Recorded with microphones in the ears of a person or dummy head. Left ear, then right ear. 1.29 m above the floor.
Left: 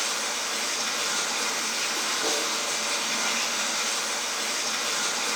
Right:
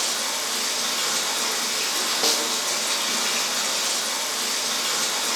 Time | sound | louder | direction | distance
0.0 | running water | right 2 dB | 35° right (ahead or behind) | 0.9 m
2.2 | a snare drum | right 6 dB | 75° right (ahead or behind) | 0.6 m